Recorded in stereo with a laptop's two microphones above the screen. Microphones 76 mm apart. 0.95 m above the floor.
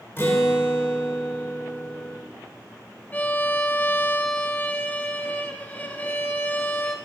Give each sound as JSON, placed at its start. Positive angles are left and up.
{"t": 0.2, "sound": "a guitar", "side_deg": 35, "distance_m": 1.5}
{"t": 3.1, "sound": "a violin", "side_deg": 25, "distance_m": 1.0}